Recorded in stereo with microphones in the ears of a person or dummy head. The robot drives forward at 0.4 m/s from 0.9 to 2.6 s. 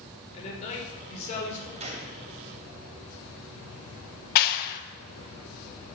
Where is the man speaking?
40° left (ahead or behind), 5.5 m.